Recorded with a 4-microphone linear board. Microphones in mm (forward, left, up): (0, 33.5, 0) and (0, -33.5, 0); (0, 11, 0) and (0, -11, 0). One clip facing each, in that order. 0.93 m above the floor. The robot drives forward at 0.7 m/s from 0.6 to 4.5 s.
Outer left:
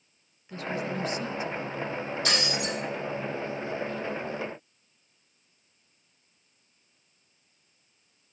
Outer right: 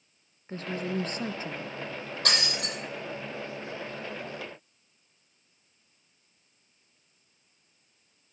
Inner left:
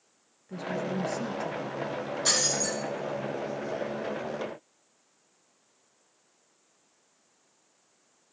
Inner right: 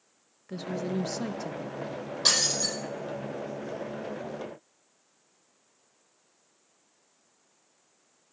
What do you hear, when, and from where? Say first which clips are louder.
0.5 s a woman speaking: even, even; 35° right (ahead or behind), 0.6 m; by 1.8 s 30° right (ahead or behind), 0.7 m
2.2 s breaking glass: even, inner right 3 dB; 50° right (ahead or behind), 4.5 m; by 2.8 s 45° right (ahead or behind), 5 m